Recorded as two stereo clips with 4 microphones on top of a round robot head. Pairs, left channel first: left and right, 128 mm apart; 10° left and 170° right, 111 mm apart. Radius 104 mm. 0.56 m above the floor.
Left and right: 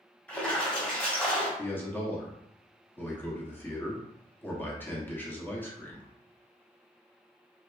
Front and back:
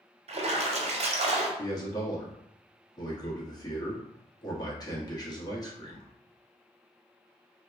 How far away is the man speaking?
About 1.1 m.